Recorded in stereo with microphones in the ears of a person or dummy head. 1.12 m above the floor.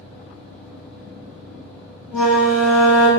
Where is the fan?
10° left (ahead or behind), 1.2 m.